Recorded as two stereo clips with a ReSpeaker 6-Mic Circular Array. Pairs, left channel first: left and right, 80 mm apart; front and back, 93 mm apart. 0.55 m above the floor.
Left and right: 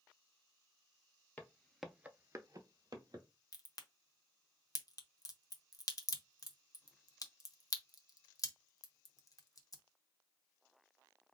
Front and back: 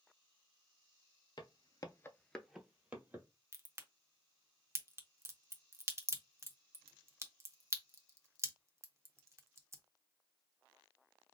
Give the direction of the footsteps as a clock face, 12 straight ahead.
11 o'clock.